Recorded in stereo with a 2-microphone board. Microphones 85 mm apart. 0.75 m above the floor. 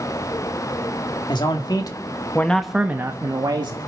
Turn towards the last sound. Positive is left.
turn(degrees=-60)  # may be behind; listen again after turning